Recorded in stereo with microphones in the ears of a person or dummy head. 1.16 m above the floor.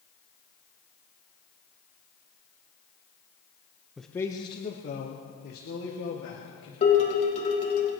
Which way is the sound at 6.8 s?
35° left (ahead or behind).